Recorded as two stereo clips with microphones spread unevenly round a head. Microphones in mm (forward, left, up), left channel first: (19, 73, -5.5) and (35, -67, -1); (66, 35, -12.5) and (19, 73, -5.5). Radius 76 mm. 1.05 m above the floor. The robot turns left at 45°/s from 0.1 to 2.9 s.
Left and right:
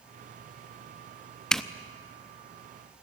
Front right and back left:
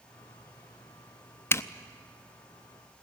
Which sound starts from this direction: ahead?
A zipper, at 1.5 s.